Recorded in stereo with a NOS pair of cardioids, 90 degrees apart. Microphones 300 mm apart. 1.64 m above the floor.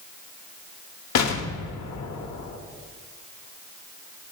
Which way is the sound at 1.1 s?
65° left.